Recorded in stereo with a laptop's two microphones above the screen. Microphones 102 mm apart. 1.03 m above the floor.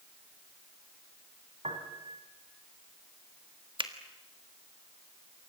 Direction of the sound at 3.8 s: 50° right (ahead or behind).